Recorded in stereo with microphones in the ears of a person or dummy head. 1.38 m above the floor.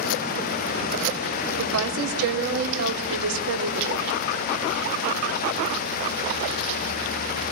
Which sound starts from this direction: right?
A woman speaking, at 1.6 s.